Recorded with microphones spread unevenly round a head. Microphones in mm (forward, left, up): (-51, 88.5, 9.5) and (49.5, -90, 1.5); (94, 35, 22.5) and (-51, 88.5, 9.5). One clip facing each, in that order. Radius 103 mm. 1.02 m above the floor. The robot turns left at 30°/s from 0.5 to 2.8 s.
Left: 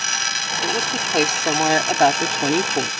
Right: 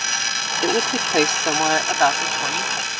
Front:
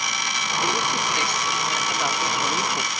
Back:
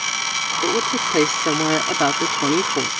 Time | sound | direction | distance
0.6 | a woman speaking | 130° right | ?